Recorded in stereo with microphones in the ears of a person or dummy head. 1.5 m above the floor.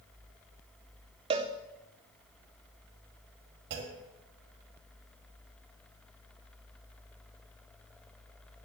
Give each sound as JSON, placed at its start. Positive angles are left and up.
{"t": 1.3, "sound": "a cowbell", "side_deg": -25, "distance_m": 0.7}
{"t": 3.7, "sound": "a clunk", "side_deg": -55, "distance_m": 2.5}